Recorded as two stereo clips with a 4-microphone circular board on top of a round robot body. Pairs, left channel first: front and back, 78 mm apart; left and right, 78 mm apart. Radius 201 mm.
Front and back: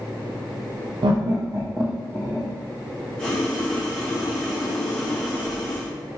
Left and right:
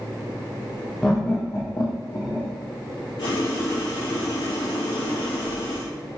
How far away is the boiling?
About 0.8 m.